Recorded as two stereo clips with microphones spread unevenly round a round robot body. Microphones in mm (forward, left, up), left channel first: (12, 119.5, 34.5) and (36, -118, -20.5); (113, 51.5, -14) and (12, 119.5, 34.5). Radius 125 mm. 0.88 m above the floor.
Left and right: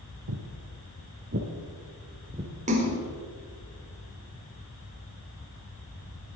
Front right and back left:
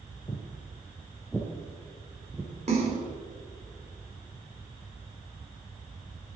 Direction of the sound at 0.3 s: 105° right.